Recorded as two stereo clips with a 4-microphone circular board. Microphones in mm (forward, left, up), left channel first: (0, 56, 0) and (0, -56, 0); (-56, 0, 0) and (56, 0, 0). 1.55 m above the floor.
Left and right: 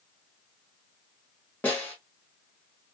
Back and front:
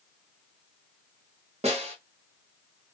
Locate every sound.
1.6 s a snare drum: 15° left, 1.0 m